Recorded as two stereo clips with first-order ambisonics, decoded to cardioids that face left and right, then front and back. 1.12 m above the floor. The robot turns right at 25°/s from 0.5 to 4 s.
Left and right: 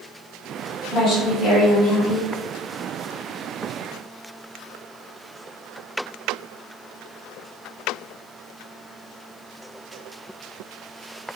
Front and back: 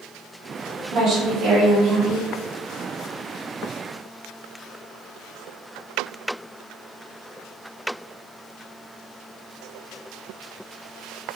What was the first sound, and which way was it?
A woman speaking, 125° left.